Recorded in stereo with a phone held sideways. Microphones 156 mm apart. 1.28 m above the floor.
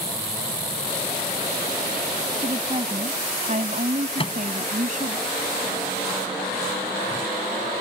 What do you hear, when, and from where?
2.4 s a woman speaking: 40° right (ahead or behind); by 5.2 s 55° right (ahead or behind)
4.2 s a microwave: 35° left (ahead or behind)